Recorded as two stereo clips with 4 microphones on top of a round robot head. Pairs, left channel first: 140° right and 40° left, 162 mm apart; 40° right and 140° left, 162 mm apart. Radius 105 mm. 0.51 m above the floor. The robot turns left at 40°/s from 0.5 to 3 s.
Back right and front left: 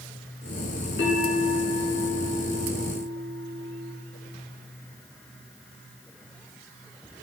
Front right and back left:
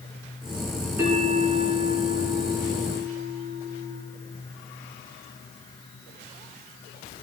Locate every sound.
1.0 s a bell: 145° right, 4 m; by 3.9 s 135° left, 4 m